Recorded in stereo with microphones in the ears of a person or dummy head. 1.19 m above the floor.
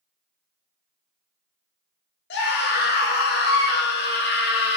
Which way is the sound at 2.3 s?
50° left (ahead or behind).